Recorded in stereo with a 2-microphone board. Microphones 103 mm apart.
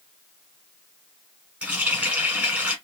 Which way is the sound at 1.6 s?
10° right (ahead or behind).